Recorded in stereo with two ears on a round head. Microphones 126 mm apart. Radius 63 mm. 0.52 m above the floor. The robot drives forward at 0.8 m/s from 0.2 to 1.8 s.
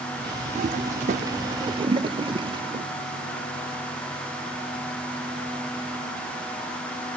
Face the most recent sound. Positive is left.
turn(degrees=-35)  # may be behind; listen again after turning